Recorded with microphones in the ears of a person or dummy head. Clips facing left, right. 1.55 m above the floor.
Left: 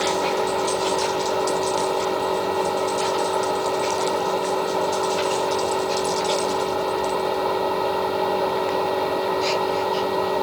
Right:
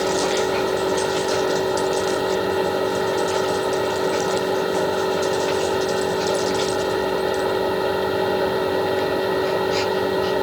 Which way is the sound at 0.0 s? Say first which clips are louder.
Right 2 dB; 15° right (ahead or behind).